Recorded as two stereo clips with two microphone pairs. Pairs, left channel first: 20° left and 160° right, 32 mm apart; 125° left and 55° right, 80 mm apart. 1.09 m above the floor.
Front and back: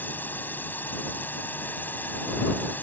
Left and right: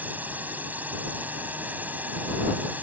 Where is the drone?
10° left.